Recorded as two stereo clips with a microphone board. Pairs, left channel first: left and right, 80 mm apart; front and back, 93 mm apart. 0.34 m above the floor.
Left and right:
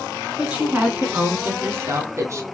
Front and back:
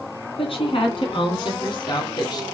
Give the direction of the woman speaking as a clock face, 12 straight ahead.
12 o'clock.